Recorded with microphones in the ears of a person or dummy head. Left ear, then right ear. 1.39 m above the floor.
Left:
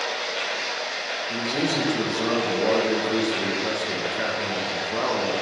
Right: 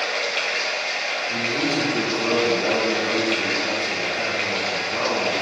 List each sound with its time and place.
0.0 s running water: 45° right (ahead or behind), 1.5 m
1.3 s a man speaking: 75° left (ahead or behind), 1.6 m